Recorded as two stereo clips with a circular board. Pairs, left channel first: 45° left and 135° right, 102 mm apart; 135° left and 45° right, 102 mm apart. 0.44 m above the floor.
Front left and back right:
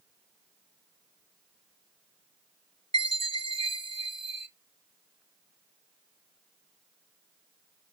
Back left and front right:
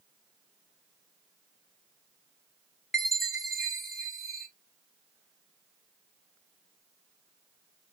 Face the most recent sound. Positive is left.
turn(degrees=-135)